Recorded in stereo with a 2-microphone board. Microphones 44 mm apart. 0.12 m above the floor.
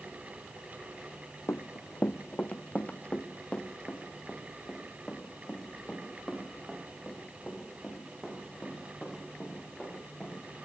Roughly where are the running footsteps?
Left.